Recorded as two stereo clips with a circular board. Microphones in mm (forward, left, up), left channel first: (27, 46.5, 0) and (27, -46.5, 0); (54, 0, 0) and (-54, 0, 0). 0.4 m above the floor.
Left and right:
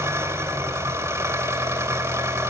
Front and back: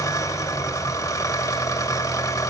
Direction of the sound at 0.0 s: 45° right.